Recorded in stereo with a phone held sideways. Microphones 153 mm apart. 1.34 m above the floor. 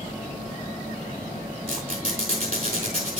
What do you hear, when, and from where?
1.7 s a squeak: 70° right (ahead or behind), 5 m